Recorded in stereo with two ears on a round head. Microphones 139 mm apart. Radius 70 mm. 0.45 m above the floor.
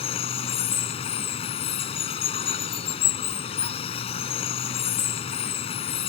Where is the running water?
40° left (ahead or behind).